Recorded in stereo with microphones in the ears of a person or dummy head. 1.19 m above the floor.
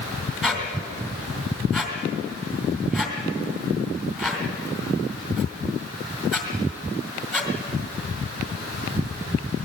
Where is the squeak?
Centre (ahead or behind), 2 m.